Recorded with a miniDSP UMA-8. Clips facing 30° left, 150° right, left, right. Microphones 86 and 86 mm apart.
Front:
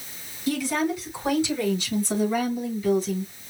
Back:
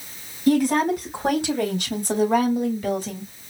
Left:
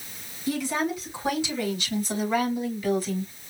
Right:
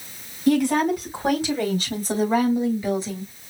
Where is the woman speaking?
115° right, 3 m; by 3.3 s 165° right, 2.5 m.